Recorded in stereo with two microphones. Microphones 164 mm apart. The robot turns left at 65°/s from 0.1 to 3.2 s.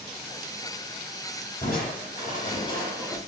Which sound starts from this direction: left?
Crushing, at 1.6 s.